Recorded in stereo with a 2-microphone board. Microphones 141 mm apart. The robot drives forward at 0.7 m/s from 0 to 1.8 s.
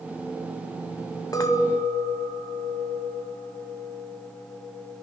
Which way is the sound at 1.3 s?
25° left (ahead or behind).